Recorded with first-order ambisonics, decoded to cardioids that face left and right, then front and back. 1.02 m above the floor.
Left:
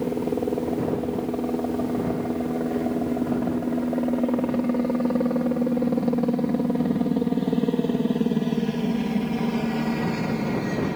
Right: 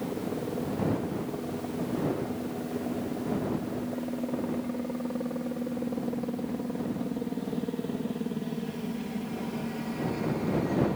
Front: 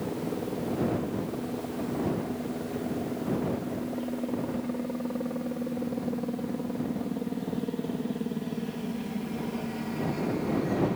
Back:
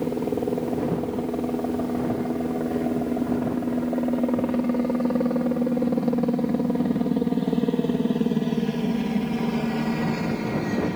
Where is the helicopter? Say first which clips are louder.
Left 8 dB, back 7 dB; 135° left.